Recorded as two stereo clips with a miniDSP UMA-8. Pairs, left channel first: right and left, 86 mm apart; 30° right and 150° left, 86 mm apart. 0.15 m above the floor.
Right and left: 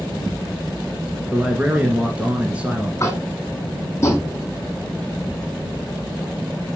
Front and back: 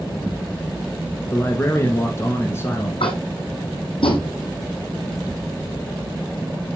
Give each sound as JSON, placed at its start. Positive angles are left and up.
{"t": 1.3, "sound": "a man speaking", "azimuth_deg": 20, "distance_m": 1.4}
{"t": 3.0, "sound": "tapping", "azimuth_deg": -30, "distance_m": 2.5}